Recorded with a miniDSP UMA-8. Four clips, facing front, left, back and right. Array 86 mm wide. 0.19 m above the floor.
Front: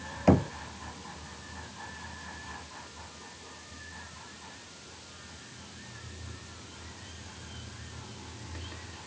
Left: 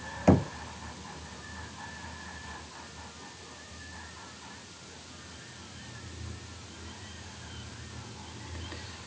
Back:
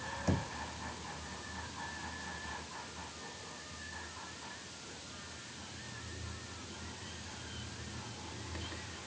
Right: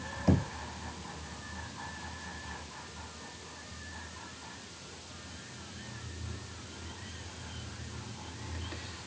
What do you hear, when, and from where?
0.3 s knocking: 40° left